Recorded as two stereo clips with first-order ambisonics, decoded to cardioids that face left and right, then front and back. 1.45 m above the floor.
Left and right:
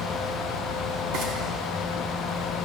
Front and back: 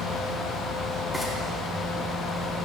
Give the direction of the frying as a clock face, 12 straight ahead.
3 o'clock.